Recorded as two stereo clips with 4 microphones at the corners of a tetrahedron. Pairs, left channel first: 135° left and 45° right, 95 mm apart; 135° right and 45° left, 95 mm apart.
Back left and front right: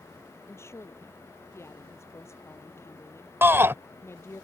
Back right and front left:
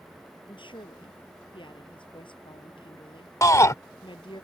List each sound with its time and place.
0.5 s a woman speaking: 165° right
3.4 s a shout: 95° right